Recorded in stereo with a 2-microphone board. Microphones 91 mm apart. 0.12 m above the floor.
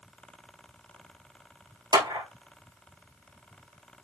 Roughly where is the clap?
Right.